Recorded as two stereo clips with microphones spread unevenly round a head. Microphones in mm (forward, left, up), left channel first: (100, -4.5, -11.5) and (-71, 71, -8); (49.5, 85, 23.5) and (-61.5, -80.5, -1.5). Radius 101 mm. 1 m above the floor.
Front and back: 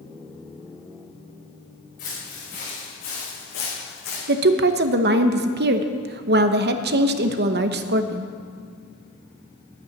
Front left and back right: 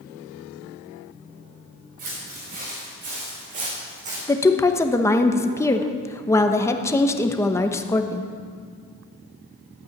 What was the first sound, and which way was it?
Footsteps, 75° right.